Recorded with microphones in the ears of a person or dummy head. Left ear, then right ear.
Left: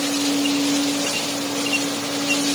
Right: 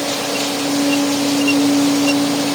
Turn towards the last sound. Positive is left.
No sound to turn to.